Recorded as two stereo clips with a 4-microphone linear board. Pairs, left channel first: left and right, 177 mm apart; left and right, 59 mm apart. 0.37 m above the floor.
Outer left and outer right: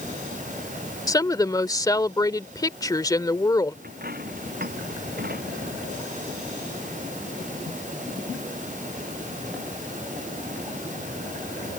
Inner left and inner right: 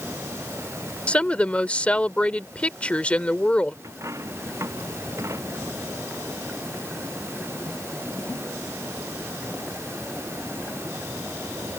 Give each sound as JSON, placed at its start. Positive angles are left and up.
{"t": 1.1, "sound": "a woman speaking", "side_deg": 20}
{"t": 3.8, "sound": "a dropped coin", "side_deg": -60}